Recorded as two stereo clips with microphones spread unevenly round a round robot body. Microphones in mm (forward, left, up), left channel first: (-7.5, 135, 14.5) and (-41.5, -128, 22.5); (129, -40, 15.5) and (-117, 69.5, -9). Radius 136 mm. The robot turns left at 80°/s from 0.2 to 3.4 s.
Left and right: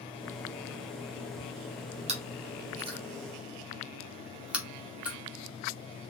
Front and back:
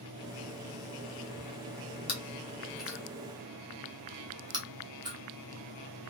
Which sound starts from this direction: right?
Chewing, at 2.1 s.